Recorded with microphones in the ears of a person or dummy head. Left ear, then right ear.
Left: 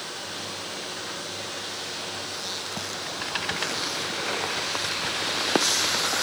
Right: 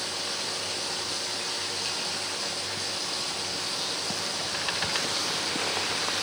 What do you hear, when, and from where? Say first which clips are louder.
0.0 s running water: right 3 dB; 85° right, 8.5 m